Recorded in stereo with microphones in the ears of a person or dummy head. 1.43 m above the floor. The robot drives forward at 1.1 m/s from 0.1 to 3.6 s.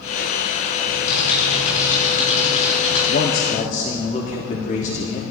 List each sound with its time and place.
0.8 s typing on a keyboard: 45° left (ahead or behind), 5.5 m; by 3.0 s 35° left (ahead or behind), 7 m
3.1 s a man speaking: 55° left (ahead or behind), 0.9 m; by 5.2 s 35° left (ahead or behind), 1.2 m